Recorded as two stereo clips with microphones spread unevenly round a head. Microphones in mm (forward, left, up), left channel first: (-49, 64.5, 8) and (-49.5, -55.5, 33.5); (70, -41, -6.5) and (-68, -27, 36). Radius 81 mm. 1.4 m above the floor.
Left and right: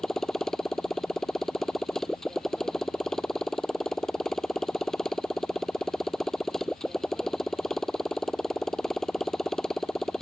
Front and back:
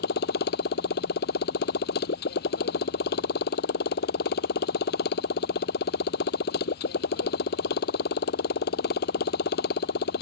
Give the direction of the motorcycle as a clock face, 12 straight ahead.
12 o'clock.